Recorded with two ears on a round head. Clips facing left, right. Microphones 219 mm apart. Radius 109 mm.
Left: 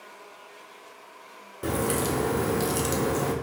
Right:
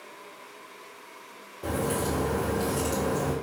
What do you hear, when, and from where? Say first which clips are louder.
1.6 s a crack: left 2 dB; 25° left (ahead or behind), 0.7 m